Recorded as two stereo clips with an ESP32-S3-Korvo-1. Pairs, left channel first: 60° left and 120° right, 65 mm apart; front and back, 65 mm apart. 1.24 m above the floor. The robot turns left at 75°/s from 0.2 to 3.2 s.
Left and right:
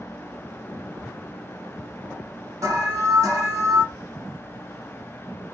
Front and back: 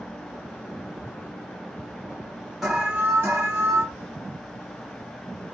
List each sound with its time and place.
2.6 s an alarm: 90° right, 1.5 m; by 3.8 s 135° right, 1.5 m